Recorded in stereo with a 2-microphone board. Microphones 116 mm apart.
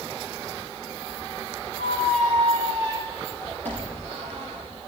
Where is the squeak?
75° right (ahead or behind), 5.5 m.